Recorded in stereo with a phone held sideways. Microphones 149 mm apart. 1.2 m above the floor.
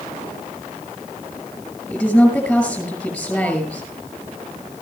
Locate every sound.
1.9 s a woman speaking: 5° left (ahead or behind), 6.5 m